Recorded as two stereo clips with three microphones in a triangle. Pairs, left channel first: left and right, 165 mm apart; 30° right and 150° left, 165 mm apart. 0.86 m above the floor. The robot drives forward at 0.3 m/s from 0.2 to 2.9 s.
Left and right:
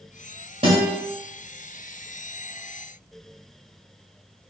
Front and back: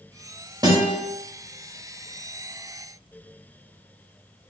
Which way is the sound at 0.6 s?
145° right.